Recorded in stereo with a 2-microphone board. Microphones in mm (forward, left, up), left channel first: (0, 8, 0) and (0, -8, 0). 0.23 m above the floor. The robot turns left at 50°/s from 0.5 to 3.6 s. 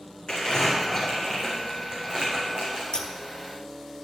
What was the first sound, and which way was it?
Crumpling, 35° left (ahead or behind).